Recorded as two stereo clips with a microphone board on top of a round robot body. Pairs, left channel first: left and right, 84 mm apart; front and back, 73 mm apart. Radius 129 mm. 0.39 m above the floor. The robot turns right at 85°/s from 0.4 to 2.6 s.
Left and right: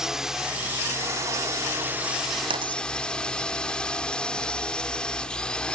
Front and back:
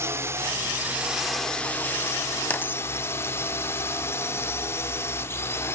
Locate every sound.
0.0 s a drone: 170° right; by 5.8 s 20° left
2.5 s a dropped coin: 75° right; by 2.8 s 65° right